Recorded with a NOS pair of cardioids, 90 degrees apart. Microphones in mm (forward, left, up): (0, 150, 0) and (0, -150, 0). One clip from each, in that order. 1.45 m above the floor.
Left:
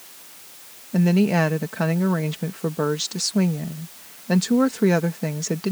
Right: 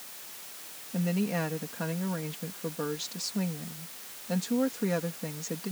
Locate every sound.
0.9 s a woman speaking: 65° left